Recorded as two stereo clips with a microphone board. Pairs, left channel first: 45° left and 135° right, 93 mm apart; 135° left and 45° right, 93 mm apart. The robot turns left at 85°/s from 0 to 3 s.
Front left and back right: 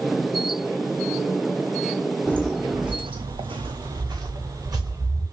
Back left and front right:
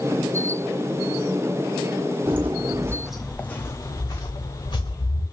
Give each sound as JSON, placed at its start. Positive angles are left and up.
{"t": 2.3, "sound": "footsteps", "azimuth_deg": -20, "distance_m": 0.7}